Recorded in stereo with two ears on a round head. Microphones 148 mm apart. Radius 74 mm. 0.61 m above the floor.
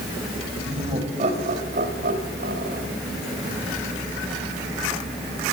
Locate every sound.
0.7 s laughter: 35° right (ahead or behind), 2.5 m; by 2.9 s 70° right (ahead or behind), 2.5 m